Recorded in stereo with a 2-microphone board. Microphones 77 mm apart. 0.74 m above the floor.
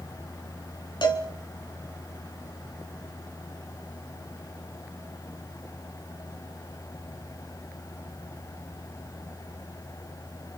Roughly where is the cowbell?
Left.